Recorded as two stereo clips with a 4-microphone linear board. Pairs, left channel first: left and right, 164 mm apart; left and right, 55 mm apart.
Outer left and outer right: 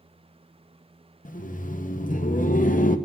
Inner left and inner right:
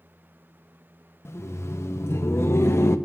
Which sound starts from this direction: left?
Laughter, at 1.2 s.